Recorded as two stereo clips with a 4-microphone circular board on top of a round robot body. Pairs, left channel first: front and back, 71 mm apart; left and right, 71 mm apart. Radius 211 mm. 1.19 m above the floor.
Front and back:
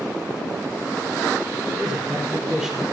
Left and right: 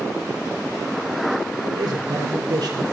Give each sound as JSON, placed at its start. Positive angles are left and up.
{"t": 1.6, "sound": "a man speaking", "azimuth_deg": -105, "distance_m": 5.0}